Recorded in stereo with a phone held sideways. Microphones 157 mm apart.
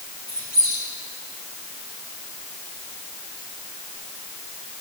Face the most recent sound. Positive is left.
turn(degrees=75)  # may be behind; listen again after turning